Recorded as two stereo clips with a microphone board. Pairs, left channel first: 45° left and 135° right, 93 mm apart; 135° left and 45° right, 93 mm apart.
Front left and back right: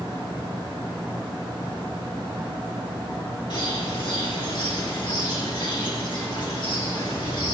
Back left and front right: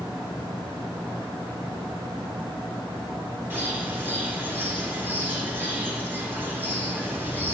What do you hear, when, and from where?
3.5 s a bird: 20° left, 3.5 m